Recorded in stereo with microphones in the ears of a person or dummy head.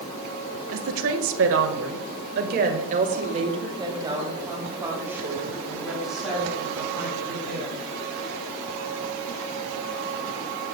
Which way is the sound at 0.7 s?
70° right (ahead or behind).